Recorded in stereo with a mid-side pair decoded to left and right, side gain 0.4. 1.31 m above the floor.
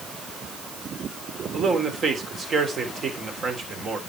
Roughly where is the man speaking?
Ahead right.